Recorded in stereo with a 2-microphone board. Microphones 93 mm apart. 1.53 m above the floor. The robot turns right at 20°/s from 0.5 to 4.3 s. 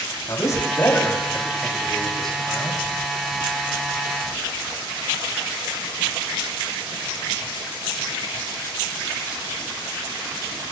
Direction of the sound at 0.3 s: 140° left.